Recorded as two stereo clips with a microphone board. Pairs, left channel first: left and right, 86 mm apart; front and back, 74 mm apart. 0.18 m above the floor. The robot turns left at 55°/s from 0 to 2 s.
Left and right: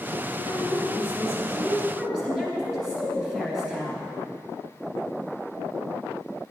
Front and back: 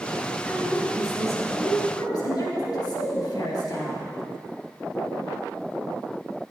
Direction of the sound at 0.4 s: 75° left.